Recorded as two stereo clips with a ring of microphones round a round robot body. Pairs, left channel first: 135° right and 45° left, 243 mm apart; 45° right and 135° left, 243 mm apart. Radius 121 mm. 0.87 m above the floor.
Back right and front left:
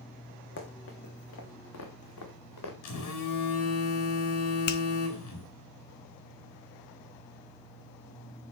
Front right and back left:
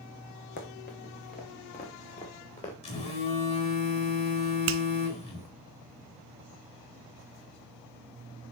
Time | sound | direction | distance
0.6 | running footsteps | 95° right | 3 m
2.8 | a phone buzzing | 110° right | 4.5 m
4.7 | a finger snap | 175° left | 0.9 m